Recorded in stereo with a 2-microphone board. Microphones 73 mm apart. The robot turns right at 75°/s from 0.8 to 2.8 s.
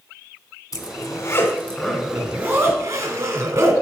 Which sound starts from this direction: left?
A zipper, at 0.7 s.